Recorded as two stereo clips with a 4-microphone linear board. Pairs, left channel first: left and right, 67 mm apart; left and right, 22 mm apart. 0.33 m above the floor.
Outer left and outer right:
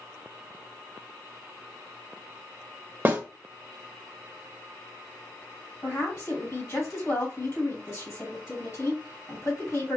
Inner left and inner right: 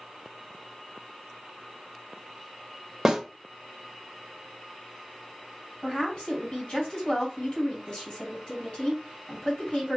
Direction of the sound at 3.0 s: 25° right (ahead or behind).